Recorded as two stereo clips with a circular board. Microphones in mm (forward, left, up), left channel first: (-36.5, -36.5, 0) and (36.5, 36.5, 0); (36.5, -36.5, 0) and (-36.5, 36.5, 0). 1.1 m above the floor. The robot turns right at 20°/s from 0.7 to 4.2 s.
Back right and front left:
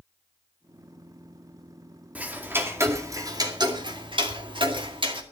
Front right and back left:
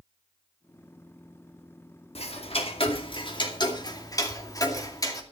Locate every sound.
2.1 s ticking: 30° right, 2 m; by 5.2 s 10° left, 2 m